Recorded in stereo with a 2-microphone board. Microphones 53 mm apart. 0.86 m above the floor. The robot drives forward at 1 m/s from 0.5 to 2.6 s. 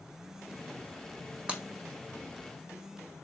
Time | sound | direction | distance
1.5 | breaking glass | 25° right (ahead or behind) | 1.4 m